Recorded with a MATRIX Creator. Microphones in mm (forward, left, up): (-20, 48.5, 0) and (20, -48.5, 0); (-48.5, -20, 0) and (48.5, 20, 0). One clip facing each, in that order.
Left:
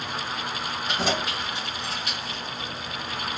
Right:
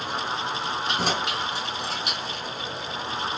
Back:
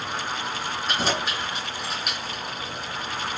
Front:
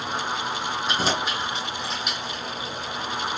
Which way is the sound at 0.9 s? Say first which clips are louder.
Left 1 dB, even; 60° right.